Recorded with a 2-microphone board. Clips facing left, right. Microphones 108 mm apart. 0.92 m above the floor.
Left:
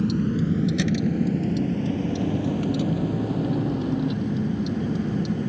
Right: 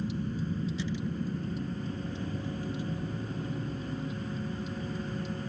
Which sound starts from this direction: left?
A vehicle, at 0.0 s.